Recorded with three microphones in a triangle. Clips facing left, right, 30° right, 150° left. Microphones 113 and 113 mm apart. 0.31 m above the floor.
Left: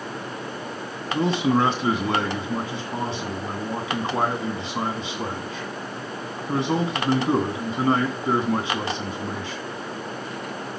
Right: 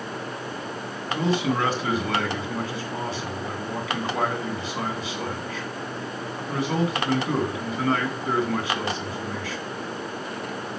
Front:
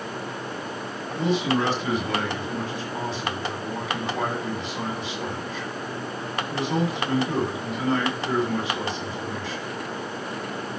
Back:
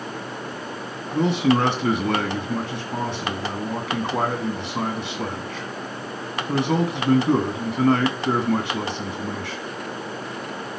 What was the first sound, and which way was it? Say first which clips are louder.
A man speaking: left 3 dB, back 4 dB; 150° left.